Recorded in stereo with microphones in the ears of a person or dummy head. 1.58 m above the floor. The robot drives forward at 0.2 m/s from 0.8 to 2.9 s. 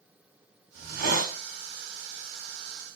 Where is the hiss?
60° right (ahead or behind), 0.9 m; by 1.4 s 55° right (ahead or behind), 1.0 m.